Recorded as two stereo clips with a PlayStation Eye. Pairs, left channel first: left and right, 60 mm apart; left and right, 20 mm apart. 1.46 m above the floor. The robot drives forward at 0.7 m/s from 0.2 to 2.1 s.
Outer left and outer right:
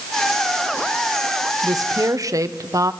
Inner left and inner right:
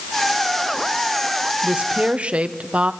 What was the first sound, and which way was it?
A woman speaking, 75° right (ahead or behind).